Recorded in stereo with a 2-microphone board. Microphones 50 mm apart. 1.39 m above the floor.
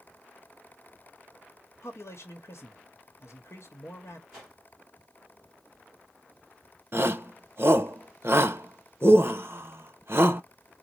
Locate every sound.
1.8 s a man speaking: 65° left (ahead or behind), 1.0 m
4.3 s a whoosh: 10° right (ahead or behind), 2.5 m
6.9 s a shout: 50° right (ahead or behind), 0.7 m